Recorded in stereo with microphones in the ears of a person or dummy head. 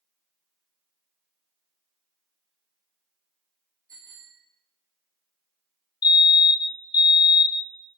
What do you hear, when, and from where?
3.9 s a bicycle bell: 25° right (ahead or behind), 3.5 m
6.0 s a fire alarm: 20° left (ahead or behind), 0.9 m